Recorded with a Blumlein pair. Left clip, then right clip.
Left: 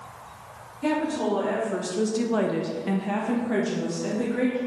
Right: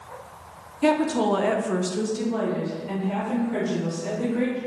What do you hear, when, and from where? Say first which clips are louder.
0.8 s a woman speaking: right 4 dB; 60° right, 0.8 m; by 4.6 s 70° left, 1.4 m